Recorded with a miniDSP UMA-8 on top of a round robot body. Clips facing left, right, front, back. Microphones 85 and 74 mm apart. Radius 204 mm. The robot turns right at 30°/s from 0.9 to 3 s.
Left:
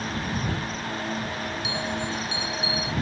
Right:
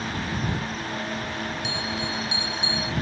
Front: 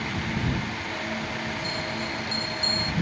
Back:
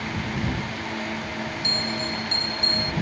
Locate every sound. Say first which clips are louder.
1.6 s a bell: left 1 dB, back 2 dB; 175° left; by 2.9 s 145° right